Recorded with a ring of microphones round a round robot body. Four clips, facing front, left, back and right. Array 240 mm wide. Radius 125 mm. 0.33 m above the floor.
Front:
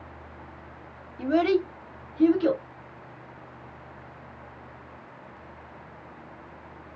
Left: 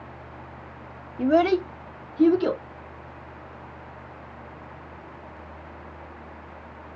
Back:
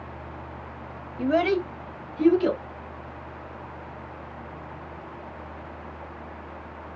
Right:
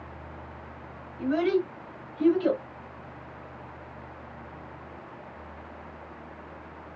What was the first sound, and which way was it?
A child speaking, 105° left.